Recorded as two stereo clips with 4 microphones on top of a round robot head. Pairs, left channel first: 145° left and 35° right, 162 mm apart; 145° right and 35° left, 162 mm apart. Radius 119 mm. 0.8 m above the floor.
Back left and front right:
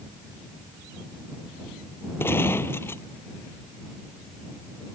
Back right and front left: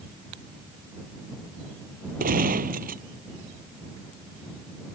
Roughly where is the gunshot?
Left.